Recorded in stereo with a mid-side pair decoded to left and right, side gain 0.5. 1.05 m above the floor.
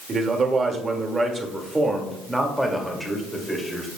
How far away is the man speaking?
About 1.9 m.